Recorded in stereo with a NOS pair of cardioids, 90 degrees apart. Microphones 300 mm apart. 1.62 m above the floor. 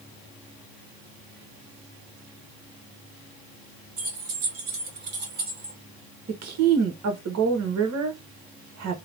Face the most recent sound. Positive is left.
turn(degrees=-60)